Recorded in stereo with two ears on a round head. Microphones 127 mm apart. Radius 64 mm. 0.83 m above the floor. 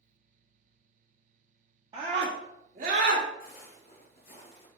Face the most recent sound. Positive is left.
turn(degrees=40)  # may be behind; listen again after turning